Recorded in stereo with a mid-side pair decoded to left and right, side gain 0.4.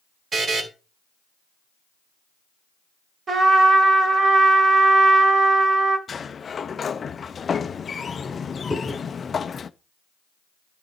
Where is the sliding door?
45° left, 0.5 m.